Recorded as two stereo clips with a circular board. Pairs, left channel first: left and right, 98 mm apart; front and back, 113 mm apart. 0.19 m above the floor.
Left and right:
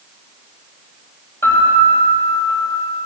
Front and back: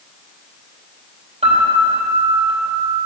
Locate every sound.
1.4 s a piano: 155° left, 4.5 m